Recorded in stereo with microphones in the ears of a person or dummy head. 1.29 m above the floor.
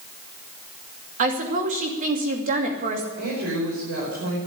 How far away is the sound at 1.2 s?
About 2.5 m.